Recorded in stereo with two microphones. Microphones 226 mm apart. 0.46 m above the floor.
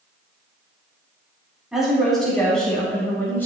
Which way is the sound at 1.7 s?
Centre (ahead or behind).